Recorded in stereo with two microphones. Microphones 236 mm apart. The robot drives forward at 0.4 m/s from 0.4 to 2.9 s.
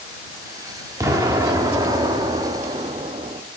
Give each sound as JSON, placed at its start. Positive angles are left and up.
{"t": 1.0, "sound": "an explosion", "side_deg": -15, "distance_m": 1.5}